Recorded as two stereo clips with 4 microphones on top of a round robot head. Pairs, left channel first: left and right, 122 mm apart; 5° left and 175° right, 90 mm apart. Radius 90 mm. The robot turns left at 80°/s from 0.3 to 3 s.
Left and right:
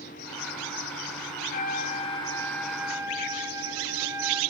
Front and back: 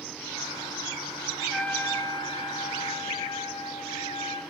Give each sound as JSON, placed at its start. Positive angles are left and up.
{"t": 1.4, "sound": "a trumpet", "azimuth_deg": 105, "distance_m": 4.0}